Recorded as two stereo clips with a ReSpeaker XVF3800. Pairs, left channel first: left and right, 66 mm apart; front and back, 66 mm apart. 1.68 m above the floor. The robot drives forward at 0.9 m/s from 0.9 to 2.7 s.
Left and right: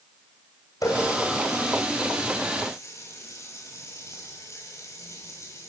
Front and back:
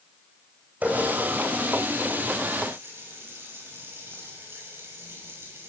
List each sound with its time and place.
0.8 s a running tap: 115° left, 5.5 m; by 5.7 s 130° left, 6.5 m